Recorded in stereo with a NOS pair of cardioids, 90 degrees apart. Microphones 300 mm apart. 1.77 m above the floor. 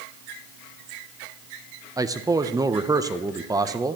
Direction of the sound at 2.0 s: 10° right.